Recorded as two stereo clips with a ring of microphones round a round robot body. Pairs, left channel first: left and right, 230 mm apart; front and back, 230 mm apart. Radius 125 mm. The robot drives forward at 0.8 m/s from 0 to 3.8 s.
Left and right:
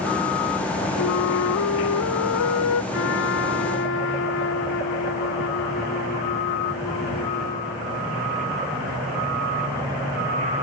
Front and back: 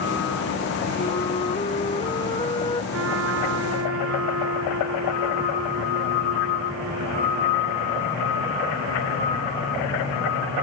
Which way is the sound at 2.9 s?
135° left.